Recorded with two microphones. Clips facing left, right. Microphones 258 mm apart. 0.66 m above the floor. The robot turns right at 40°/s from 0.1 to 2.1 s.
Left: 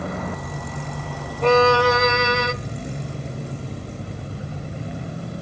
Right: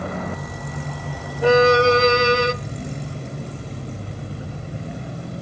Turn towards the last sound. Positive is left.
turn(degrees=-35)  # may be behind; listen again after turning